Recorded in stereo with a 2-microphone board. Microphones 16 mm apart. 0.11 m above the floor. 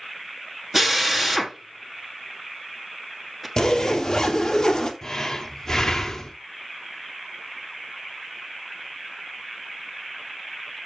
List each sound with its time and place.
0.7 s a drill: 10° right (ahead or behind), 1.7 m
3.6 s a zipper: 30° left (ahead or behind), 1.6 m
5.0 s breathing: 30° left (ahead or behind), 1.3 m